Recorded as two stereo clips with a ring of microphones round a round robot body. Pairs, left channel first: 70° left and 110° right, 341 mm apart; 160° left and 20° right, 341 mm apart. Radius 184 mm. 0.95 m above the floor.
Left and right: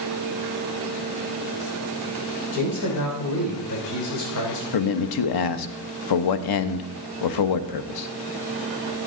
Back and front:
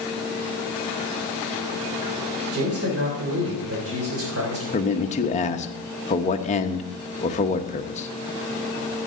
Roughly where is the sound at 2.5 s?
Ahead left.